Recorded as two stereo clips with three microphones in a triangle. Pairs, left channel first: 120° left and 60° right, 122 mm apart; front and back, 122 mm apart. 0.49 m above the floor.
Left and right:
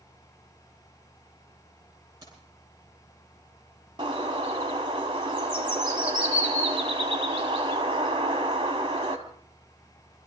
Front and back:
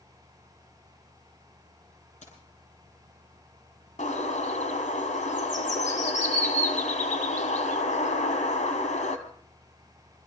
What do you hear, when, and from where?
2.2 s keys jangling: straight ahead, 10 m
4.0 s a bird: 10° right, 3 m